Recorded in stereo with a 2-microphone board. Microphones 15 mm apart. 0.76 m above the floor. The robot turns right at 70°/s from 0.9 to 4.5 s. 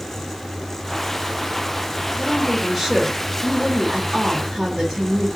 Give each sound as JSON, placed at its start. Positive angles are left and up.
{"t": 2.2, "sound": "a woman speaking", "azimuth_deg": 145, "distance_m": 2.0}